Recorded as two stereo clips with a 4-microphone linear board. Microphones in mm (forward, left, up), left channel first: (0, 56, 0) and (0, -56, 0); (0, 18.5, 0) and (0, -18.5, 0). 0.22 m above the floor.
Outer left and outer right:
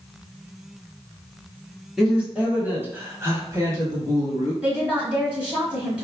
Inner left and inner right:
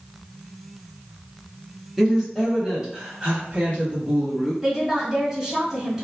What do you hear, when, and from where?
2.0 s a woman speaking: 5° right (ahead or behind), 1.3 m; by 4.5 s 30° right (ahead or behind), 1.6 m
4.6 s a woman speaking: 10° right (ahead or behind), 1.3 m